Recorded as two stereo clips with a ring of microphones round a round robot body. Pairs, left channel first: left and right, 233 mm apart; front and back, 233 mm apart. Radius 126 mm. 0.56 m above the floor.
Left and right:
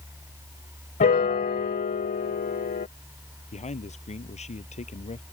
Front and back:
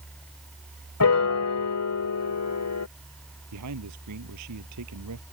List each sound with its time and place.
1.0 s a piano: 30° left
3.5 s a man speaking: 150° left